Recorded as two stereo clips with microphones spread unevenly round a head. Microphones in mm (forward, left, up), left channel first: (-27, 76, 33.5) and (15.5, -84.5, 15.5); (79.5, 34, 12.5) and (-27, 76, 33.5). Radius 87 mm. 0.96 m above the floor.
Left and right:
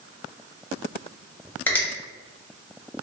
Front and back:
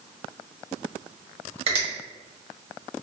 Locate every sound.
1.7 s a finger snap: 170° right, 0.9 m